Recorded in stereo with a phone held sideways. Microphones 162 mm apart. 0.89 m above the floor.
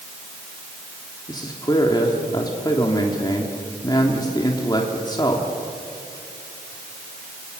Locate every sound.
1.3 s a man speaking: 25° left (ahead or behind), 2.5 m